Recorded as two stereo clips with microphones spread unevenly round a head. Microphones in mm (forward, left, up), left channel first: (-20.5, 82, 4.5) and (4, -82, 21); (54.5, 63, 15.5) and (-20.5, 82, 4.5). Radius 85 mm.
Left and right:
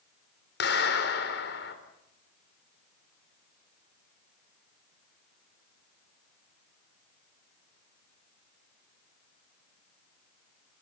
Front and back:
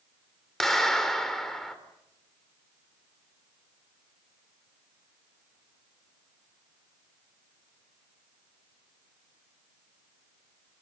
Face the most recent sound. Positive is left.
turn(degrees=70)